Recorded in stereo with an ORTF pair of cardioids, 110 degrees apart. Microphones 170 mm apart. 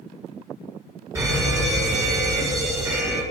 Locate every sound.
1.1 s a fire alarm: 15° right, 6.5 m